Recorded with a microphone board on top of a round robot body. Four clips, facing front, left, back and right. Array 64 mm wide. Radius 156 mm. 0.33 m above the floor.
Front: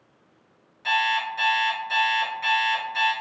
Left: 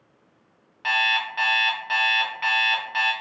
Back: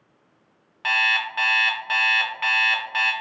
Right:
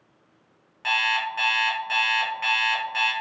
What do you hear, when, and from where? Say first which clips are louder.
0.8 s an alarm clock: left 1 dB, back 1 dB; 170° left, 0.8 m